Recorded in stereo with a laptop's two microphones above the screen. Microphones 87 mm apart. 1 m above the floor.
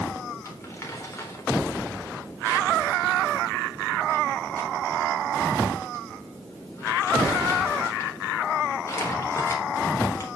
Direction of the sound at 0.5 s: 30° left (ahead or behind).